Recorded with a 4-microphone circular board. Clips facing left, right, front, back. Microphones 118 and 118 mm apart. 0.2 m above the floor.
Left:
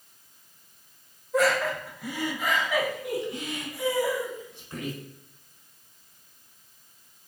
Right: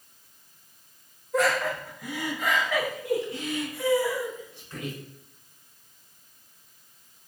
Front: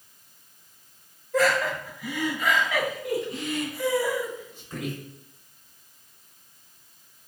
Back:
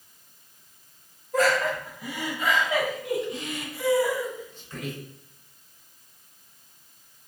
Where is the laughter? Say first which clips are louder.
Left 1 dB, even; straight behind, 1.9 m; by 5.0 s 50° left, 1.4 m.